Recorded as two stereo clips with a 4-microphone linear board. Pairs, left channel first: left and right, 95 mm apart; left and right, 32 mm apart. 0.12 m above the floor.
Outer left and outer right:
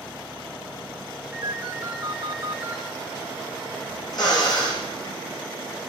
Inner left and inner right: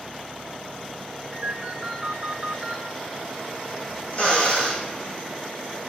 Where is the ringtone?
25° right (ahead or behind), 4.5 m.